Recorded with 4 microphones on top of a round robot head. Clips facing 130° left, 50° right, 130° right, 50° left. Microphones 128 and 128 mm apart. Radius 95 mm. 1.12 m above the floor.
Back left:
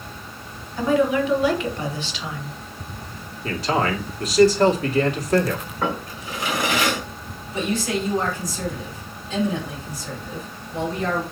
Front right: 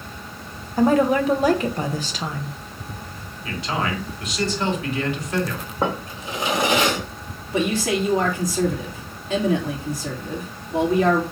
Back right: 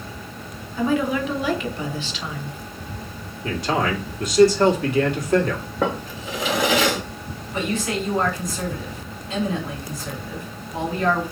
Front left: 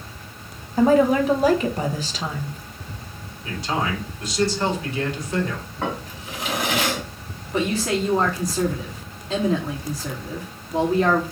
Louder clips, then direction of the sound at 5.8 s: Front right 3 dB, back right 4 dB; 115° right.